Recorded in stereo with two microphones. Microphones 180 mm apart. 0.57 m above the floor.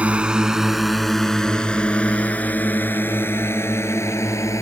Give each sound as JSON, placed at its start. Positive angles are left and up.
{"t": 0.0, "sound": "a drone", "side_deg": -5}